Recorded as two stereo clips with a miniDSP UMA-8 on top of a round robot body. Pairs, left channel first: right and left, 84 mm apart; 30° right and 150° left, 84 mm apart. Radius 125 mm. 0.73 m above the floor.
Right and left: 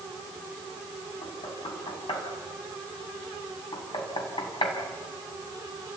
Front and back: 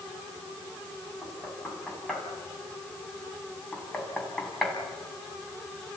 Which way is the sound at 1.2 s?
115° right.